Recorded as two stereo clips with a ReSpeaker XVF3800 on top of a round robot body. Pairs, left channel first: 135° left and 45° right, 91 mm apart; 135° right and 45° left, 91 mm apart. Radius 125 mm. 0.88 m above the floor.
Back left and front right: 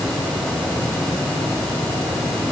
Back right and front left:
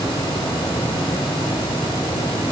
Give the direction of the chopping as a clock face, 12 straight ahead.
I don't hear chopping.